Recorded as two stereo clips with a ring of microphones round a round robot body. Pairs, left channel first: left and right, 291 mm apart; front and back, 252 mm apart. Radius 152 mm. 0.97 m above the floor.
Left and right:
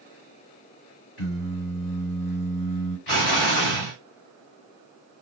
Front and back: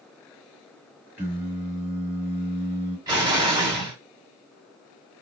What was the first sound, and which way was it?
Singing, 100° left.